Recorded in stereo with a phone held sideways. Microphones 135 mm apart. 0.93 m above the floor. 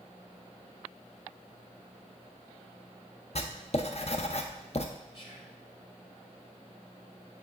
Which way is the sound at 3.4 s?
50° left (ahead or behind).